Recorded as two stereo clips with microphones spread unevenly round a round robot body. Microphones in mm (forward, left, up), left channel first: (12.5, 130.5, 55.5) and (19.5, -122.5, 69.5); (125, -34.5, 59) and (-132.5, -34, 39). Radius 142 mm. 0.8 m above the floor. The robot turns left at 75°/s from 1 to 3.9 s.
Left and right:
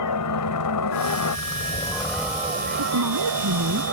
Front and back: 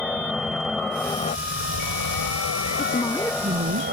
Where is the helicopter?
90° left; by 3.9 s 130° right.